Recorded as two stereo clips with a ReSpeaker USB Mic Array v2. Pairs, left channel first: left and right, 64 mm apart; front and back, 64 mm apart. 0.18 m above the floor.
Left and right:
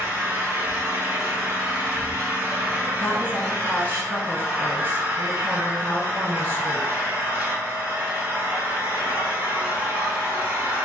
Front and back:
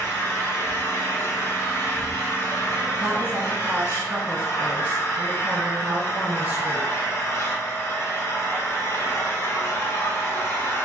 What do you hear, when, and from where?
0.0 s an engine running: 40° right, 1.1 m
3.0 s a woman speaking: 130° left, 1.4 m